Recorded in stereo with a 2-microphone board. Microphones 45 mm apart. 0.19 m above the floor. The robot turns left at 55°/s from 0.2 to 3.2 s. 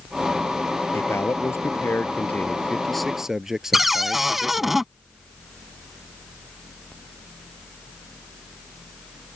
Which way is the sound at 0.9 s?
115° left.